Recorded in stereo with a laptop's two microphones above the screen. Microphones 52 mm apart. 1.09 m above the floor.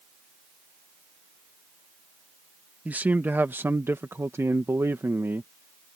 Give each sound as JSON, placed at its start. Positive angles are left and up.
{"t": 2.9, "sound": "a man speaking", "side_deg": -30}